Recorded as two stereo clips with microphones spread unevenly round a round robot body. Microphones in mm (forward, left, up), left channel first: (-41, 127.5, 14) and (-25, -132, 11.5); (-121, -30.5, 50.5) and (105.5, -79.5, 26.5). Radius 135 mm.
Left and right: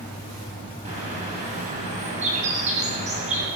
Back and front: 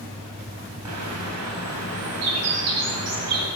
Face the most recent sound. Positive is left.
turn(degrees=-20)